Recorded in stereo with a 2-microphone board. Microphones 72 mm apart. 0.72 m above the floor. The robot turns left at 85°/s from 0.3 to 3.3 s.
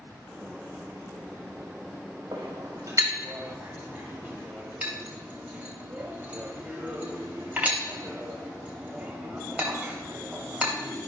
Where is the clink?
75° right (ahead or behind), 2.5 m; by 10.7 s 20° right (ahead or behind), 2.5 m.